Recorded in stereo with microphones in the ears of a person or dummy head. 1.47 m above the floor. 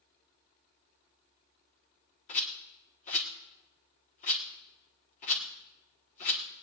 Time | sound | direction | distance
2.3 | a rattle | 25° left (ahead or behind) | 1.3 m